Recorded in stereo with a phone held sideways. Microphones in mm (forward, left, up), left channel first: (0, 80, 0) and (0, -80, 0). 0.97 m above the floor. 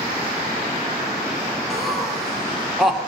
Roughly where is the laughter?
Centre.